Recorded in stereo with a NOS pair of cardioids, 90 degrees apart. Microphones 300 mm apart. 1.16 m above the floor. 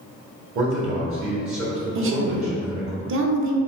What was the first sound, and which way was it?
A man speaking, 50° right.